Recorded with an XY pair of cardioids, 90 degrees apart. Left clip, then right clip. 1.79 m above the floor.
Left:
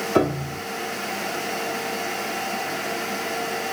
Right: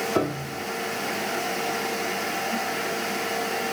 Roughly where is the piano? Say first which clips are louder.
Left 4 dB; ahead left.